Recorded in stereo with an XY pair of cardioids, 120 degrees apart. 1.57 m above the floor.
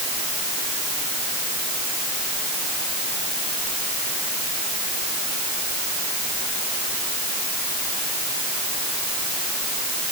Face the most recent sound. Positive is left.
No sound to turn to.